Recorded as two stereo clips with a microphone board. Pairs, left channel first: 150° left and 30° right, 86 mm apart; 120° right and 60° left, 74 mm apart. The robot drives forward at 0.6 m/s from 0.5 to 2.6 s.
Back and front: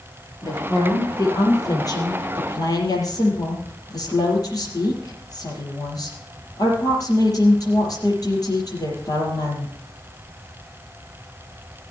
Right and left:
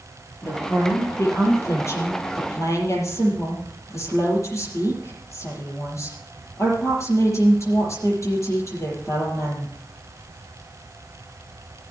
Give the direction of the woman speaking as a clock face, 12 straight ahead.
6 o'clock.